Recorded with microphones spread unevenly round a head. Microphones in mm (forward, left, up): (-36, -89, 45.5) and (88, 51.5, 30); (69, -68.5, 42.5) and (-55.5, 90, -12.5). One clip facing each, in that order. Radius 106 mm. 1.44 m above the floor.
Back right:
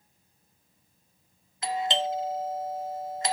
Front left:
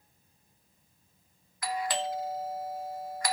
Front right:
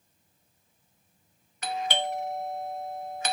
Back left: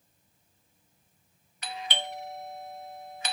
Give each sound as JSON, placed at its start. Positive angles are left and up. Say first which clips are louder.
{"t": 1.6, "sound": "a doorbell", "louder": "back right 3 dB, front right 7 dB", "azimuth_deg": -80, "distance_m": 0.9}